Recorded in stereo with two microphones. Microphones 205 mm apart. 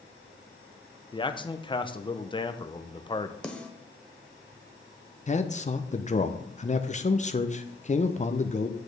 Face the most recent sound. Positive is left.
turn(degrees=35)  # may be behind; listen again after turning